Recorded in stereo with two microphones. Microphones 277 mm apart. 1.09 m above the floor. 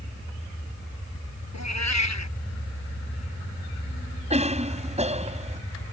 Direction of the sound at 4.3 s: 25° right (ahead or behind).